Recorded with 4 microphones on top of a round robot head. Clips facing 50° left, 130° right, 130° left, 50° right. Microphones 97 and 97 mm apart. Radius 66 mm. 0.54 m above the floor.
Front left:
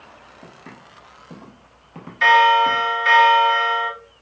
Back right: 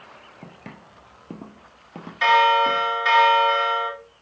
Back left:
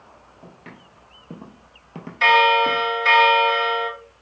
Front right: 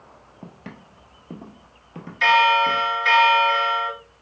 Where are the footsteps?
100° right, 0.9 m; by 2.9 s 150° left, 1.1 m.